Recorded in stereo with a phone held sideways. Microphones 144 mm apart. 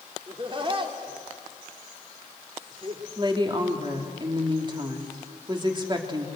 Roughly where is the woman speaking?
Right.